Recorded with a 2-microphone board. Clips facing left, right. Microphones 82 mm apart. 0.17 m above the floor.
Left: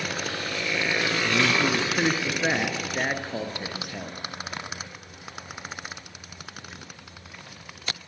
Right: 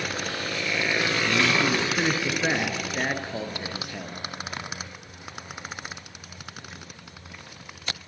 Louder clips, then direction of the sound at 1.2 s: Even; 5° left (ahead or behind).